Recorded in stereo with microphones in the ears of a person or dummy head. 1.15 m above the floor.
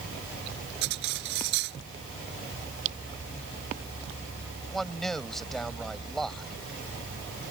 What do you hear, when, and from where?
0.8 s cutlery clinking: 60° right (ahead or behind)
2.9 s a camera shutter: 40° right (ahead or behind)
4.7 s a man speaking: 5° left (ahead or behind)